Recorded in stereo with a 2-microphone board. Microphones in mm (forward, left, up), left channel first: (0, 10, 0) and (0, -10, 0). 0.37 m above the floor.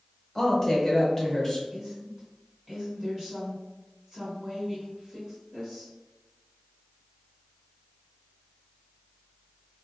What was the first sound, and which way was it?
A woman speaking, 15° left (ahead or behind).